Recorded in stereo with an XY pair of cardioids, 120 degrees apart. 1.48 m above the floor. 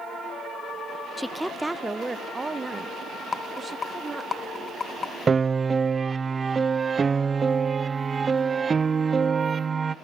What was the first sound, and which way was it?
A woman speaking, 10° left.